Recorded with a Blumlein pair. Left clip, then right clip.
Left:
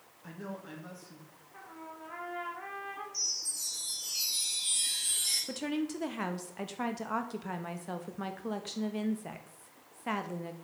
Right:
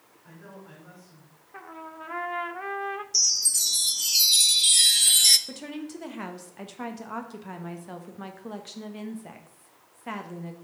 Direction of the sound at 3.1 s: 50° right.